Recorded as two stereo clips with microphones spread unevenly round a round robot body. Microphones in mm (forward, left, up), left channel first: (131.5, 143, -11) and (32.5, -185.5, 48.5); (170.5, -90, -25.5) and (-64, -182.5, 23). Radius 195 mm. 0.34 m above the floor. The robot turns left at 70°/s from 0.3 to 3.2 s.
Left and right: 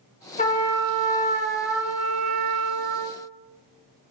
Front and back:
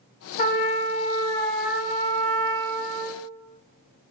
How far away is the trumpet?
About 0.8 m.